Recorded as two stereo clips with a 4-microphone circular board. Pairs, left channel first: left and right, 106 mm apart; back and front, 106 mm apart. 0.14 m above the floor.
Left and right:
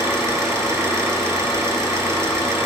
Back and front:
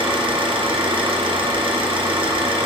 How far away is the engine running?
About 2 m.